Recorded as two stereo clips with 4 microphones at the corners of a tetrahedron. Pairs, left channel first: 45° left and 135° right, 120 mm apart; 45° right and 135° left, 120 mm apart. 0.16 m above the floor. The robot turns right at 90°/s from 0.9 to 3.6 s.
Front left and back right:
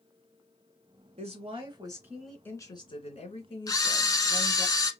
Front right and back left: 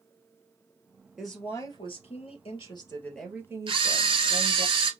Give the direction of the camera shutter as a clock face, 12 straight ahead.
9 o'clock.